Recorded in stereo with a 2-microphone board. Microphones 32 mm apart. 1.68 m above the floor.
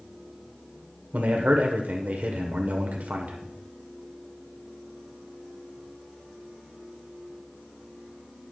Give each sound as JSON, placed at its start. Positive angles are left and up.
{"t": 1.1, "sound": "a man speaking", "side_deg": -60, "distance_m": 1.1}